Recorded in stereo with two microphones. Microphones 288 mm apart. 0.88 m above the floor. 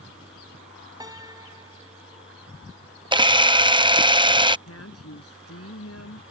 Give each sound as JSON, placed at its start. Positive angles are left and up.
{"t": 1.0, "sound": "a piano", "side_deg": -15}
{"t": 3.1, "sound": "a camera shutter", "side_deg": -15}
{"t": 4.7, "sound": "a woman speaking", "side_deg": 55}